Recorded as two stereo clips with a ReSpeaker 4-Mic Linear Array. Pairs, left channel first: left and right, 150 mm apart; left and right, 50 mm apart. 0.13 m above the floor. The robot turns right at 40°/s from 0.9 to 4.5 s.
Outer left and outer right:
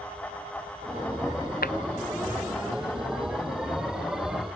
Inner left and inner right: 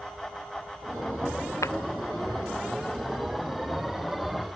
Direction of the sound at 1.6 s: 80° left.